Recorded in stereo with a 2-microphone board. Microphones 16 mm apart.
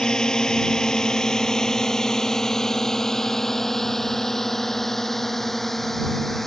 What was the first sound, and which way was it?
A drone, 70° left (ahead or behind).